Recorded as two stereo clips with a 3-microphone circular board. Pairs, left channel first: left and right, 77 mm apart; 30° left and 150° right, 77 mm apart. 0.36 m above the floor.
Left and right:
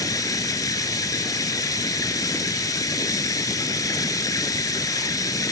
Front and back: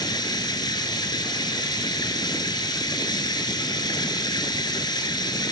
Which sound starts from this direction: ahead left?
Running water, at 0.0 s.